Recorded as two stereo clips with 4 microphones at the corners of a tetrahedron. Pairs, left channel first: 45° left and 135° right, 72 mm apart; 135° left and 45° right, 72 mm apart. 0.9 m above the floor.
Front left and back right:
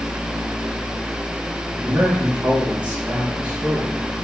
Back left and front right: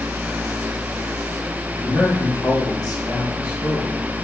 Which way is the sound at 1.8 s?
155° left.